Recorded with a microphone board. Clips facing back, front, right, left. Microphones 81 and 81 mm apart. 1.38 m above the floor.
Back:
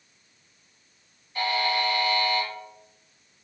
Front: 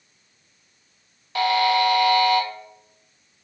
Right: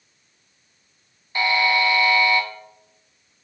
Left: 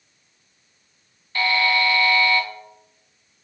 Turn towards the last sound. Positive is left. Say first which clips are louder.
# front 7 dB, right 1 dB
turn(degrees=-15)